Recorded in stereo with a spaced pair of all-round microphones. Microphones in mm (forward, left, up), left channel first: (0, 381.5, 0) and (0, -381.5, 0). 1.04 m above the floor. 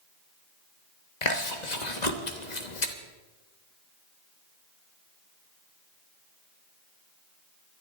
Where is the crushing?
No crushing in this recording.